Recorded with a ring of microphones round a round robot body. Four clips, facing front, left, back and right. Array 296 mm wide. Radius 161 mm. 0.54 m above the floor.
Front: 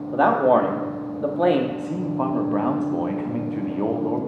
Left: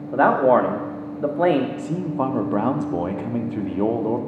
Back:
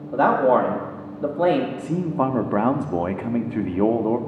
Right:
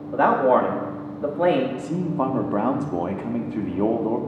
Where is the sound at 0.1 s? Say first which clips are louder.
Left 2 dB, even; 70° left, 0.9 m.